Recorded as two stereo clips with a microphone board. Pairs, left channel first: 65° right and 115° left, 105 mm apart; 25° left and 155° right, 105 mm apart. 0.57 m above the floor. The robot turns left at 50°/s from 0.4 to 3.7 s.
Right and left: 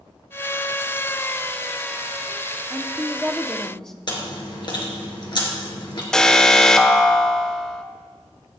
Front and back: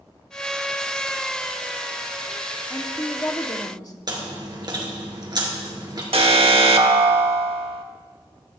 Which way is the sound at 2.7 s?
65° left.